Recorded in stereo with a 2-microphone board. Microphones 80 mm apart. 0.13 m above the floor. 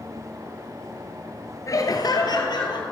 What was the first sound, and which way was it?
Laughter, 45° left (ahead or behind).